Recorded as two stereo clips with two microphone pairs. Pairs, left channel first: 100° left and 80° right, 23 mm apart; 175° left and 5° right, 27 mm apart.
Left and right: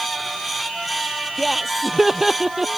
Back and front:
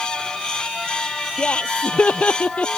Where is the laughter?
160° right; by 2.7 s 150° right.